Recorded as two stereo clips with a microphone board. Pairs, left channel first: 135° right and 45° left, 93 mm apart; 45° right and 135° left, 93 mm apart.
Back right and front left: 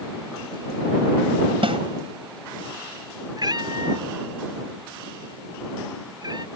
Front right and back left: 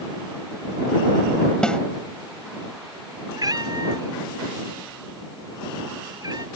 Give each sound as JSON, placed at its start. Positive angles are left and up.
{"t": 1.6, "sound": "a snare drum", "azimuth_deg": 35}
{"t": 3.4, "sound": "a cat meowing", "azimuth_deg": 90}